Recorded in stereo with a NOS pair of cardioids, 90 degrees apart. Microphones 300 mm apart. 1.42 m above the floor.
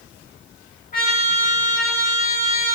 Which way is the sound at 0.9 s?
30° left.